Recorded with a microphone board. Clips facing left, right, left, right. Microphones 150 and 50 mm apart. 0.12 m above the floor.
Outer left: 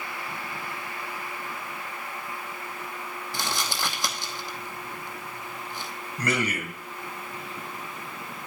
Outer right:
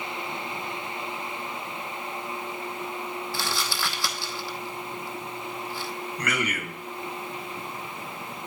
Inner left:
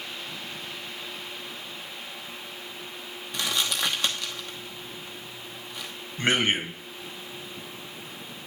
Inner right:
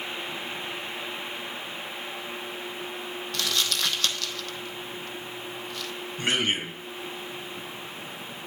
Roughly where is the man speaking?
Left.